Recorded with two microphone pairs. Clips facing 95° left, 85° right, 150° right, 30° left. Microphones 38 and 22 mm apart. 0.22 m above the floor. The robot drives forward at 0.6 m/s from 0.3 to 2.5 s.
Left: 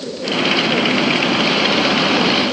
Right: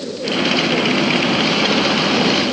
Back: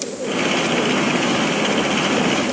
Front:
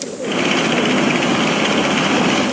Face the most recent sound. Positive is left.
No sound to turn to.